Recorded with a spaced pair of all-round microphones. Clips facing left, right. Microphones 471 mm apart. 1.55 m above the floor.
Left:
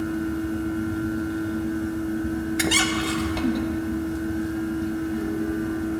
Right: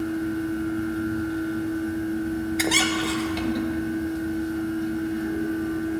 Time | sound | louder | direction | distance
0.0 | a fan | even | 70° left (ahead or behind) | 0.9 m
2.6 | a squeak | even | 35° left (ahead or behind) | 0.6 m